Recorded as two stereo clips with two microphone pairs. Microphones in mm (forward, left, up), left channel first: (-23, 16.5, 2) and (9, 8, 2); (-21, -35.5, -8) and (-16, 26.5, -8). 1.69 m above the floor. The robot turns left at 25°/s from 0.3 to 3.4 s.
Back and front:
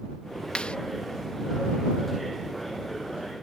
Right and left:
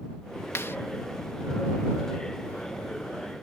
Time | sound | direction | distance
0.6 | a clap | 140° right | ?